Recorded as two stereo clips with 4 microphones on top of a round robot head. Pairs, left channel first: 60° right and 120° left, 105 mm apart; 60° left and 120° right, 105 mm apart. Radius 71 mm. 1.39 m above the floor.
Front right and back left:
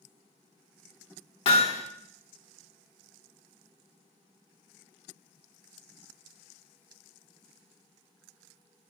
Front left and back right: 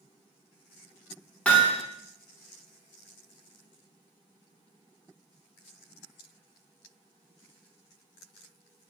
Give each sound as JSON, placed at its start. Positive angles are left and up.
{"t": 1.4, "sound": "hammering", "azimuth_deg": -20, "distance_m": 1.6}